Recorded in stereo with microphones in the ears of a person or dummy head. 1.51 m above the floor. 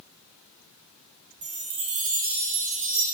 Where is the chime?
55° right (ahead or behind), 1.0 m.